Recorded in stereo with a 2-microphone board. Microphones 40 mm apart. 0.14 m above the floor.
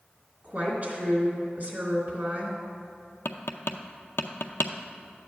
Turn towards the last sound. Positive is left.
turn(degrees=80)